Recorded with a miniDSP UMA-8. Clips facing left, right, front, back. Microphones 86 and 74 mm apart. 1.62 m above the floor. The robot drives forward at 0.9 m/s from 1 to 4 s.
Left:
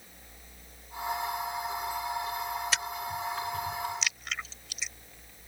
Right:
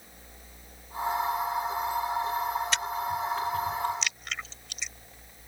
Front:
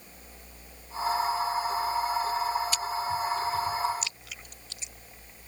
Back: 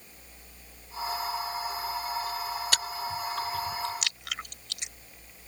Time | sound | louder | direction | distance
2.7 | chewing | right 4 dB, front 3 dB | 175° left | ?